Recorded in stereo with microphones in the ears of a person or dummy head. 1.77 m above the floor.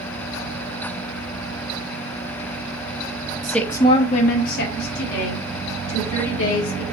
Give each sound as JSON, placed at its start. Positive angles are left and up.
{"t": 3.4, "sound": "a woman speaking", "side_deg": 0, "distance_m": 0.8}